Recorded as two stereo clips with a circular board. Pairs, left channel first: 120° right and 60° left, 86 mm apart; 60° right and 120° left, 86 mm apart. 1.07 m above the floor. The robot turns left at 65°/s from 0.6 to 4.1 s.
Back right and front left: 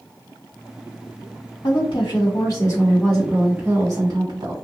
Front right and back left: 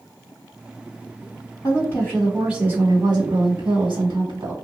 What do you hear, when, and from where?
1.6 s a woman speaking: 110° right, 1.7 m; by 4.5 s 90° left, 1.7 m